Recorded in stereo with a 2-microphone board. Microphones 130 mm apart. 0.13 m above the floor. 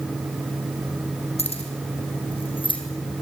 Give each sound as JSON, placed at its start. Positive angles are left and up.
{"t": 1.4, "sound": "keys jangling", "side_deg": 60, "distance_m": 4.5}